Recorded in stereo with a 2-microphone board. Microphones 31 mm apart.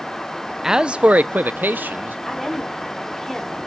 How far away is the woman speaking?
About 5 m.